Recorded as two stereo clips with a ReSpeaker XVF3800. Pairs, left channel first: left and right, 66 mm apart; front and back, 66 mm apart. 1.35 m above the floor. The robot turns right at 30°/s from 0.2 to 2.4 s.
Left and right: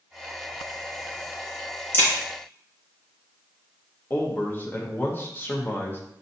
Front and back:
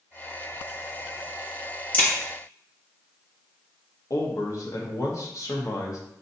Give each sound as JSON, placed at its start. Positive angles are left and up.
{"t": 1.9, "sound": "a crack", "azimuth_deg": 55, "distance_m": 1.4}
{"t": 4.1, "sound": "a man speaking", "azimuth_deg": 35, "distance_m": 1.0}